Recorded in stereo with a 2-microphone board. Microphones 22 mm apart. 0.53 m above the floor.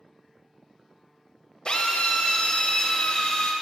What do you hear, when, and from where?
1.6 s a drill: 35° left (ahead or behind), 1.1 m